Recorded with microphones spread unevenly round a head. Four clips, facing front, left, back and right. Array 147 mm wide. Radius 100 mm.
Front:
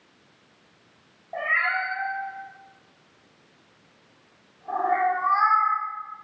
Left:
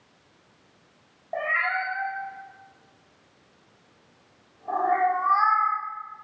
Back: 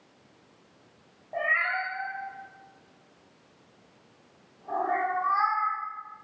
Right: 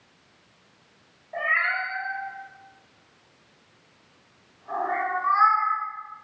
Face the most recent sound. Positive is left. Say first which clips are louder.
# even, front 2 dB
turn(degrees=125)